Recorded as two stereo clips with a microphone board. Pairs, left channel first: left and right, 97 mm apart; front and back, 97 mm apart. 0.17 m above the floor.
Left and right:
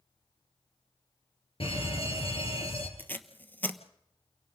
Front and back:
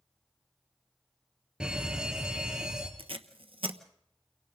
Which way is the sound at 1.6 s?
100° left.